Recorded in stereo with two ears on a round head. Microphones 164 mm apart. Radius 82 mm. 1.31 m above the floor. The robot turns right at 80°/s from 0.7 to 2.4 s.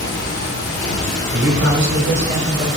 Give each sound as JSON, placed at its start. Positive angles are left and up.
{"t": 0.0, "sound": "running water", "azimuth_deg": 120, "distance_m": 1.5}
{"t": 1.3, "sound": "a man speaking", "azimuth_deg": -110, "distance_m": 1.1}